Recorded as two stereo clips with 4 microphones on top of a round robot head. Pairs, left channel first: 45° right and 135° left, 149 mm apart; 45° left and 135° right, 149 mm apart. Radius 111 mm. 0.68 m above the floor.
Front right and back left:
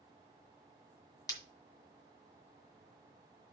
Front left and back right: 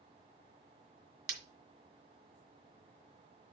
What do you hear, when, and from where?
1.3 s breaking glass: 115° right, 2.0 m